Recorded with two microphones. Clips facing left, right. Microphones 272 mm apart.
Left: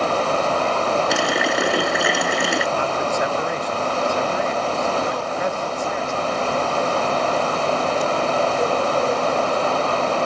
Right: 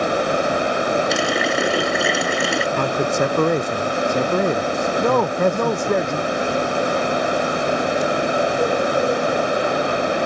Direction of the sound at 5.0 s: 65° right (ahead or behind).